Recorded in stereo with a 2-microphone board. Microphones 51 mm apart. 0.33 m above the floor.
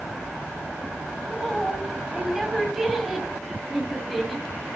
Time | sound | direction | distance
1.2 | a woman speaking | 5° right (ahead or behind) | 2 m